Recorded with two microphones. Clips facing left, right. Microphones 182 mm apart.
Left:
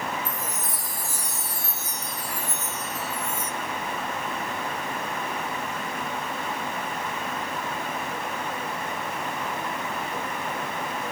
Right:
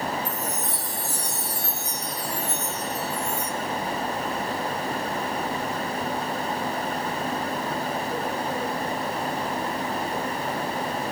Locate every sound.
0.2 s a chime: 65° right (ahead or behind), 4.5 m